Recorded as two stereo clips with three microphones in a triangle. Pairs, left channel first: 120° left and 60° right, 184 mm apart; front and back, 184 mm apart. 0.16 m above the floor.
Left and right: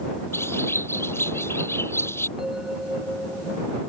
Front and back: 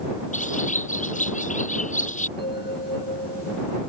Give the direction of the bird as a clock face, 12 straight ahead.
11 o'clock.